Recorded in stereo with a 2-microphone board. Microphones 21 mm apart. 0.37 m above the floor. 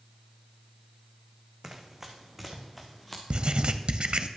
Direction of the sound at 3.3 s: 55° right (ahead or behind).